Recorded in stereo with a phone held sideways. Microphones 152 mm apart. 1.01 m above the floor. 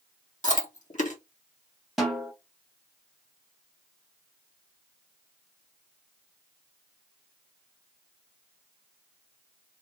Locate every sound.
0.4 s chewing: 55° left (ahead or behind), 1.6 m
2.0 s a snare drum: centre (ahead or behind), 1.5 m